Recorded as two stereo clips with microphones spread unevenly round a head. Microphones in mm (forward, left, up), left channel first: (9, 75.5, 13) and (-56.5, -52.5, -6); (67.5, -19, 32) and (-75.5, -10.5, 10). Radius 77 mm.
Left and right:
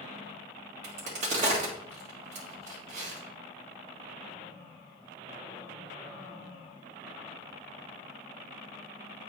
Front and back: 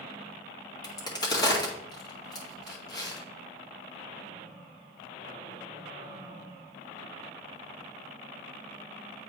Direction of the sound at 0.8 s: 65° right.